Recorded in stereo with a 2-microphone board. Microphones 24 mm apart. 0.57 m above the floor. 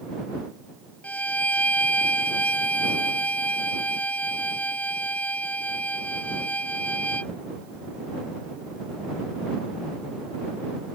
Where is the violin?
85° left.